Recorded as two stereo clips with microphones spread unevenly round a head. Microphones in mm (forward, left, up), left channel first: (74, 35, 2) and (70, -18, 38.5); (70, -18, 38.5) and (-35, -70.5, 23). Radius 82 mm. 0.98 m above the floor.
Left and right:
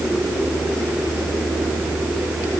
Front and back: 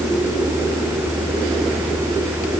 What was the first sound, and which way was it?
Only background noise.